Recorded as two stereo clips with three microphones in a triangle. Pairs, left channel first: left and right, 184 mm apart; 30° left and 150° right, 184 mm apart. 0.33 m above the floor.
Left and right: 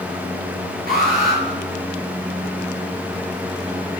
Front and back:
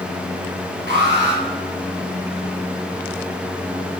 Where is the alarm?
125° right, 6.5 m.